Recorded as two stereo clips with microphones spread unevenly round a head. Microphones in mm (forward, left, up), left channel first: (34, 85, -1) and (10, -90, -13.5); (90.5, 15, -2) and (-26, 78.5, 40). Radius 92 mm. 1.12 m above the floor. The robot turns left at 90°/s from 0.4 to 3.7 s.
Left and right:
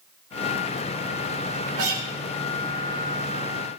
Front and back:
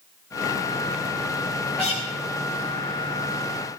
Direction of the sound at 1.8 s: 110° right.